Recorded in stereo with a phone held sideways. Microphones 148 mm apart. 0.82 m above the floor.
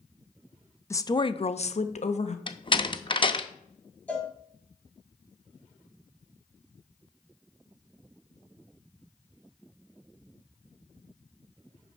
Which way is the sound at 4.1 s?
10° left (ahead or behind).